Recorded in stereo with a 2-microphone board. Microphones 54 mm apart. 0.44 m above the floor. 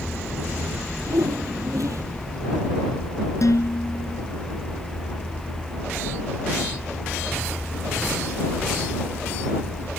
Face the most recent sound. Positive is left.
turn(degrees=80)